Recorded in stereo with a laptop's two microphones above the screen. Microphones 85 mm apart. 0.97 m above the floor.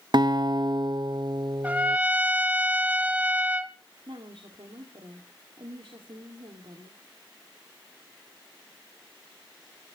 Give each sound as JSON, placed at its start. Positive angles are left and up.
{"t": 0.1, "sound": "a guitar", "side_deg": -55, "distance_m": 0.7}
{"t": 1.6, "sound": "a trumpet", "side_deg": -20, "distance_m": 1.0}
{"t": 4.1, "sound": "a woman speaking", "side_deg": -85, "distance_m": 2.0}